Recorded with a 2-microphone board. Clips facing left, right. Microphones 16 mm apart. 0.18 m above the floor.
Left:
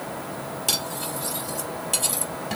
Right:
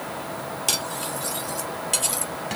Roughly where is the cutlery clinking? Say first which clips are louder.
Even; right.